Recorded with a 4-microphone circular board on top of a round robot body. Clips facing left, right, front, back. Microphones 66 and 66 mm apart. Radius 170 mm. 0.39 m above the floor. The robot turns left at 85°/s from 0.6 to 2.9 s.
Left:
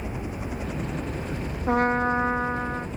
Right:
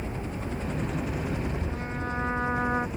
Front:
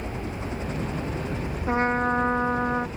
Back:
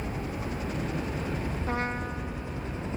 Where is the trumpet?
75° left; by 2.9 s 30° right.